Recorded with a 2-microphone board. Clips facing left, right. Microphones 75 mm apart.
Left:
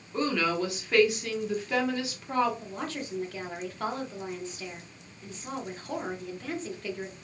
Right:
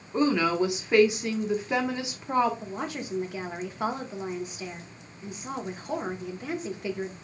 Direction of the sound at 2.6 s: 15° right (ahead or behind).